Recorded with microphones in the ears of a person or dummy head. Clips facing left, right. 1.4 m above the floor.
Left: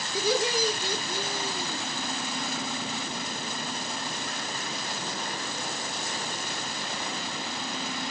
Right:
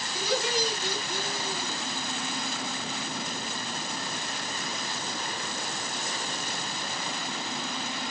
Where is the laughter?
65° left (ahead or behind), 1.9 m; by 1.8 s 85° left, 2.5 m.